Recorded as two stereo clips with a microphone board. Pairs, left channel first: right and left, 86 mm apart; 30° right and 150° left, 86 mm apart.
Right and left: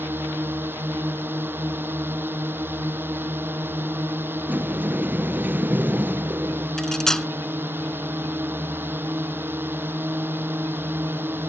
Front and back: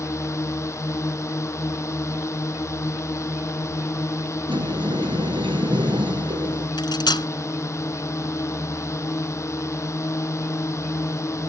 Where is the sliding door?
160° left.